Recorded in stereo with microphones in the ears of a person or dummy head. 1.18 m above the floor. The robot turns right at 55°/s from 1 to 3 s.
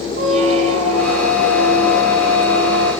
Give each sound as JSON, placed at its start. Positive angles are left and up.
{"t": 0.2, "sound": "a squeak", "azimuth_deg": -40, "distance_m": 6.5}